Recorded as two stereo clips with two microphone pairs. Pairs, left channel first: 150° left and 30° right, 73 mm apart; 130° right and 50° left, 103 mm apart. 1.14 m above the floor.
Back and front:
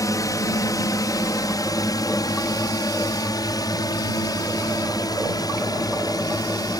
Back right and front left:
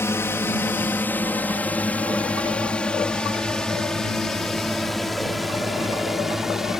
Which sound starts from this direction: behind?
A drone, at 0.0 s.